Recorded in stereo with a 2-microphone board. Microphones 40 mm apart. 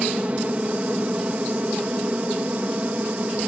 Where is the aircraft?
35° right (ahead or behind); by 3.5 s 40° right (ahead or behind).